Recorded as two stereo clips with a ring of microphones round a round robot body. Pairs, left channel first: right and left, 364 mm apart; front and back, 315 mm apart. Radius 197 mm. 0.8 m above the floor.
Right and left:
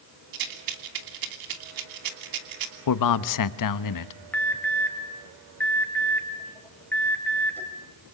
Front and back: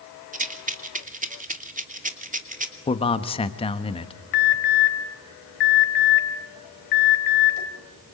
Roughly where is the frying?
No frying in this recording.